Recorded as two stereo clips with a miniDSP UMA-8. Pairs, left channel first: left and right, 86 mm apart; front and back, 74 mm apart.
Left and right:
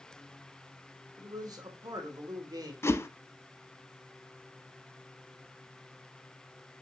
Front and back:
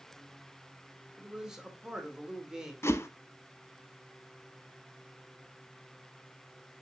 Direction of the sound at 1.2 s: 100° right.